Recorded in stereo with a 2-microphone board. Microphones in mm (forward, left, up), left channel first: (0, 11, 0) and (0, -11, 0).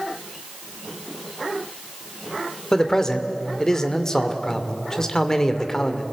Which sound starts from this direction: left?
A man speaking, at 2.7 s.